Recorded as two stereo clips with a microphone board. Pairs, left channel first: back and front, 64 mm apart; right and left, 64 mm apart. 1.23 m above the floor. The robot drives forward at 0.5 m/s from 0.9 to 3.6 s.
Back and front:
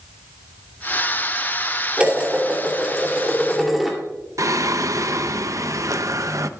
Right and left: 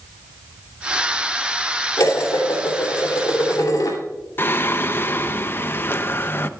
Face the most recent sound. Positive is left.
turn(degrees=-35)